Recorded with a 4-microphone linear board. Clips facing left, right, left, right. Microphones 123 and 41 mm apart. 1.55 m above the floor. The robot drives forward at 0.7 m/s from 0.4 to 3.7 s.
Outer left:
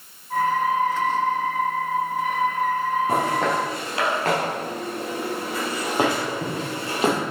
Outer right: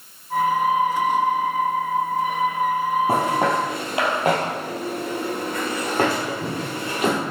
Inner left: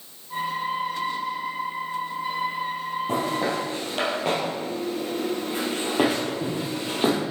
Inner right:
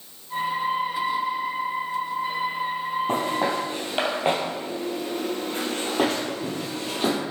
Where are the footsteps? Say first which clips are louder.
Outer right 2 dB, even; 35° right (ahead or behind), 2.5 m; by 7.2 s 30° left (ahead or behind), 2.5 m.